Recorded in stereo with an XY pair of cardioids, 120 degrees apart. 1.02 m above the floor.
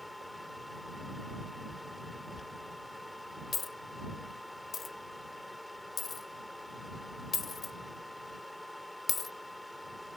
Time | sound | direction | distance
0.0 | a fan | 5° left | ?
2.4 | a dropped coin | 30° left | ?